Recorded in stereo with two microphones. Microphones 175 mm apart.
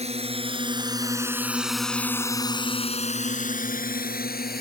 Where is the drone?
40° right (ahead or behind); by 4.6 s 65° left (ahead or behind).